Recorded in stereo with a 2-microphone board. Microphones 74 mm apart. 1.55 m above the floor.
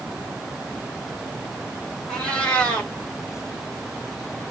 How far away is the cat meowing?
About 1.3 m.